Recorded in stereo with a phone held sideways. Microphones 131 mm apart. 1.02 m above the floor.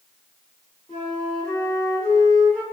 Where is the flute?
10° left (ahead or behind), 1.9 m.